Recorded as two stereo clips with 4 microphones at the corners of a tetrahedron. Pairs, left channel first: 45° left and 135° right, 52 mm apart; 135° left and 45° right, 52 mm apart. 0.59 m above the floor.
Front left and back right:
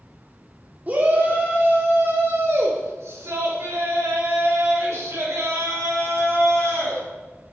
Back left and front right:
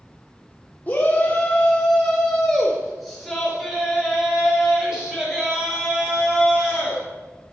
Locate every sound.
0.9 s a shout: straight behind, 1.2 m; by 7.0 s 120° right, 4 m